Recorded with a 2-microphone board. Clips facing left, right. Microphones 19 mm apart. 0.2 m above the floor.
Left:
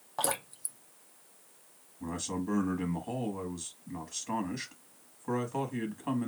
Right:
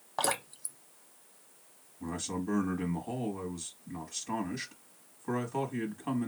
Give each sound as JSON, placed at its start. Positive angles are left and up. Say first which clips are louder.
{"t": 0.2, "sound": "dripping", "louder": "right 2 dB", "side_deg": -20, "distance_m": 0.6}
{"t": 2.0, "sound": "a man speaking", "louder": "even", "side_deg": 5, "distance_m": 1.1}